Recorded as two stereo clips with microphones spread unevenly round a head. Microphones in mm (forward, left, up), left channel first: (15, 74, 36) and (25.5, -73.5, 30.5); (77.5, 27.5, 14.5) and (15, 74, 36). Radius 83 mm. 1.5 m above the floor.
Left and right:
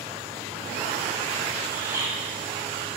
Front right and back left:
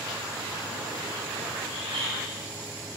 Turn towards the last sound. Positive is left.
turn(degrees=-165)